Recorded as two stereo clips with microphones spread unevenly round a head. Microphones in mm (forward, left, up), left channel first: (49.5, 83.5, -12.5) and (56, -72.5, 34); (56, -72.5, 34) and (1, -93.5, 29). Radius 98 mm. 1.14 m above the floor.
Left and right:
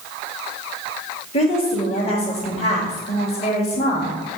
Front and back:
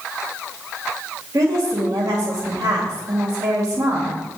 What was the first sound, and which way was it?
A woman speaking, 145° left.